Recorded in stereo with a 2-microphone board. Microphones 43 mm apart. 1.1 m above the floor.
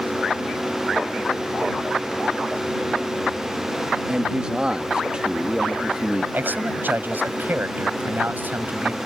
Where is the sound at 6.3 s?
50° right (ahead or behind).